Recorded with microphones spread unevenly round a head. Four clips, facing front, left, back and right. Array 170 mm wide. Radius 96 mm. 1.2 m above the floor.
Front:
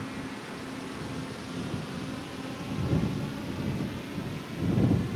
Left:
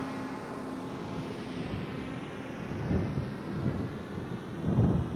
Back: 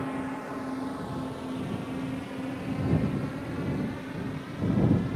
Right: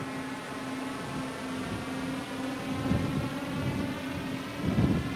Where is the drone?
175° right; by 5.2 s 110° right.